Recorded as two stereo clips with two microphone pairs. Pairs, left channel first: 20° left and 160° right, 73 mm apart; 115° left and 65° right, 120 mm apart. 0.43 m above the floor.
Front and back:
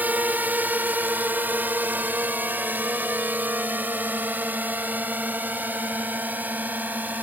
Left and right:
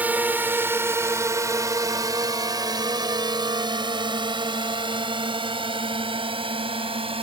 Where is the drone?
130° right; by 7.2 s 95° right.